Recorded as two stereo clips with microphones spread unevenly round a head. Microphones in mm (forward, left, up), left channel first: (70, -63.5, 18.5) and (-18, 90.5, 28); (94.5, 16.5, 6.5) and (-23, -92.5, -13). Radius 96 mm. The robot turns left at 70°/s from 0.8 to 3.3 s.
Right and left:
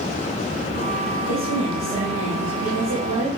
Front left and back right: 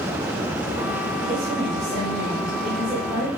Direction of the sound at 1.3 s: 105° right.